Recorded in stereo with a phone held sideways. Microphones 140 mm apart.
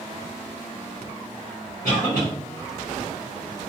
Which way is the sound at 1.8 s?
70° left (ahead or behind).